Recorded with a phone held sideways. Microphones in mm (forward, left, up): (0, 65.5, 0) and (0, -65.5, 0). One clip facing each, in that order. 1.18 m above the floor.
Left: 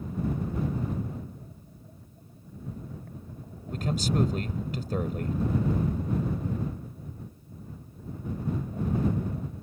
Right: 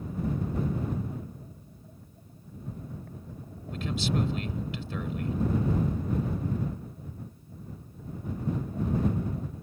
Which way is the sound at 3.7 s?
45° left (ahead or behind).